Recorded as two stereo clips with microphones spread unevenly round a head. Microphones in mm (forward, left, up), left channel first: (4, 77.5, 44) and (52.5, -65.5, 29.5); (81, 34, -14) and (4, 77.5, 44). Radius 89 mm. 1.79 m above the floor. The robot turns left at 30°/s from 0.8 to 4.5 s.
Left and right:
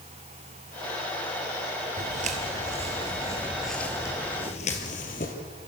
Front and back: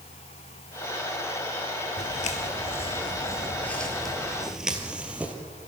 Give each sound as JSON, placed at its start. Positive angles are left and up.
{"t": 2.0, "sound": "footsteps", "azimuth_deg": -35, "distance_m": 2.5}